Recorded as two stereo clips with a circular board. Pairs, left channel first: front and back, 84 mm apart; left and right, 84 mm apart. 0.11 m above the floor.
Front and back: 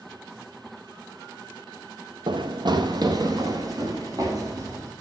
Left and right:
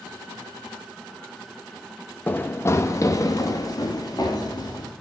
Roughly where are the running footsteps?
Behind.